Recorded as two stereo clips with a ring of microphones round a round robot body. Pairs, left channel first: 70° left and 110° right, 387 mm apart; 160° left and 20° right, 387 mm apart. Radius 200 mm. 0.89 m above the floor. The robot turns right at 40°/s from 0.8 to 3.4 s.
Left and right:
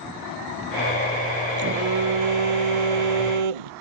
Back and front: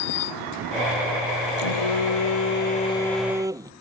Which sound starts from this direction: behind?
A phone buzzing, at 1.6 s.